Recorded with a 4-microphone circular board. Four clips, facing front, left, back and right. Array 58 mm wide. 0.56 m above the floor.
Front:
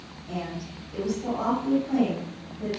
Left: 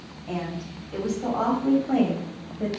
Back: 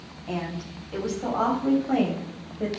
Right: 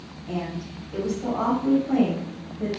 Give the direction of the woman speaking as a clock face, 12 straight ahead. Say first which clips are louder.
Right 1 dB, back 2 dB; 7 o'clock.